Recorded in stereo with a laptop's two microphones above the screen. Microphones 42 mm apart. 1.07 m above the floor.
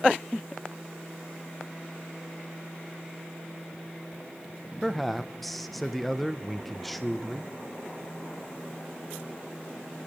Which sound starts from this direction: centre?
A man speaking, at 4.8 s.